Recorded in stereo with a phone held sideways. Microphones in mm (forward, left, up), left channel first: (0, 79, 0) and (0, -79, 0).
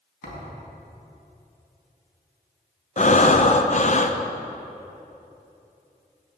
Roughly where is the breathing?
Left.